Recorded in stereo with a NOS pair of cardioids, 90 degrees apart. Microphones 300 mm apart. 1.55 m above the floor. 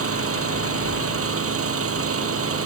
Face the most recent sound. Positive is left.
turn(degrees=-50)